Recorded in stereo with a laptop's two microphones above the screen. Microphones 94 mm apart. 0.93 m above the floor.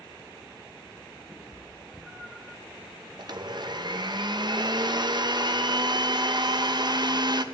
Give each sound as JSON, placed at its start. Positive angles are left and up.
{"t": 1.3, "sound": "a cat meowing", "side_deg": -5, "distance_m": 1.7}
{"t": 3.2, "sound": "a blender", "side_deg": -50, "distance_m": 0.8}